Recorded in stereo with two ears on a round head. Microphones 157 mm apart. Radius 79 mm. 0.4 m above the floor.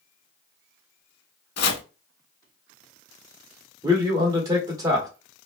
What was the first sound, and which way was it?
Chopping, 60° left (ahead or behind).